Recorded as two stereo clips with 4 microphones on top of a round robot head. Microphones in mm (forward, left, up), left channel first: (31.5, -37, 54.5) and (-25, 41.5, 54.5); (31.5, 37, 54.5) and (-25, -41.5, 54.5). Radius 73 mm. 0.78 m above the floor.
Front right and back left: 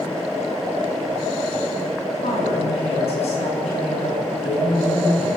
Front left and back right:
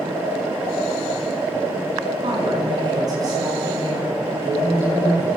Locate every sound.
2.2 s a woman speaking: 80° right, 8.5 m; by 5.3 s 60° right, 10 m